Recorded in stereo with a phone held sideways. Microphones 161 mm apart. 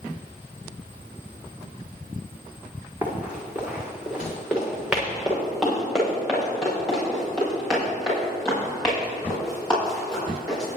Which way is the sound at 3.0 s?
10° right (ahead or behind).